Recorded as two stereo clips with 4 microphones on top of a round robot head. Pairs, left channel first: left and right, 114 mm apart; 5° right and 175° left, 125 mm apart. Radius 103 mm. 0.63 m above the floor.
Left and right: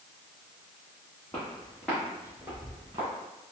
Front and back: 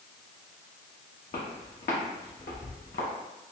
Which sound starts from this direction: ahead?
Footsteps, at 1.3 s.